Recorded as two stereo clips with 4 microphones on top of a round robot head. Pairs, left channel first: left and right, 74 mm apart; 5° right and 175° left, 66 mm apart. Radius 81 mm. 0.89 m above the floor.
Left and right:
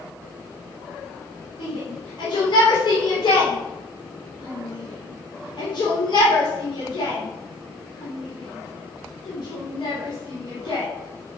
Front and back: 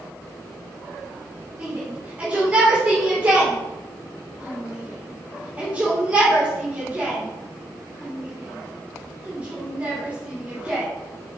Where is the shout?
105° left, 3.5 m.